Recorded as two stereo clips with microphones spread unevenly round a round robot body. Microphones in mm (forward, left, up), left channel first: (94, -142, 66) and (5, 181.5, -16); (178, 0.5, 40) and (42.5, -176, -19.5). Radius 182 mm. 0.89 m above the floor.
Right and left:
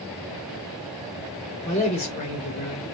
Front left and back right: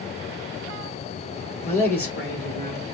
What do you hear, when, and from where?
1.6 s a man speaking: straight ahead, 2.5 m